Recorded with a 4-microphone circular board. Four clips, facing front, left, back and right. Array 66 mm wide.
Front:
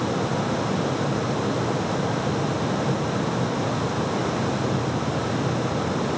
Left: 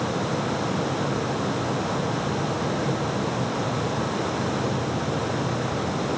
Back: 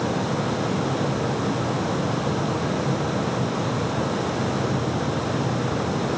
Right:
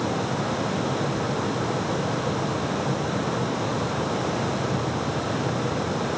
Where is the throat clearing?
I don't hear throat clearing.